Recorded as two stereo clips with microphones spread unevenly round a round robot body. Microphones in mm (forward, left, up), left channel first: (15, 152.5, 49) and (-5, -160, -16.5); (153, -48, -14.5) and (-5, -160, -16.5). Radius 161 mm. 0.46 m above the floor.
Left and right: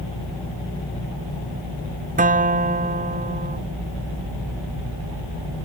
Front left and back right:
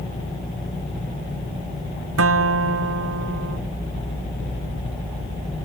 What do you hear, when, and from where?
2.2 s a guitar: 160° right